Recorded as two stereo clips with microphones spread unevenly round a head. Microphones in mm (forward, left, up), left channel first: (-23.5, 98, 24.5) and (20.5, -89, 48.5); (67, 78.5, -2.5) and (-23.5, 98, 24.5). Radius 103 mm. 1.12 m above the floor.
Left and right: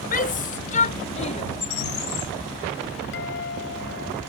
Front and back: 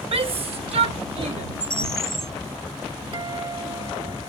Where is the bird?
110° left.